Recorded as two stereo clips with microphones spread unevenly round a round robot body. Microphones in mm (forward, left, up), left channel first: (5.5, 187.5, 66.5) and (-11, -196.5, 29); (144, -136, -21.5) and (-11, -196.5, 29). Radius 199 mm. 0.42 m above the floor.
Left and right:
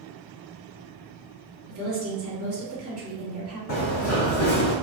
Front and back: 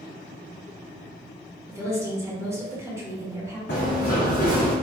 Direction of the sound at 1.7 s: 70° right.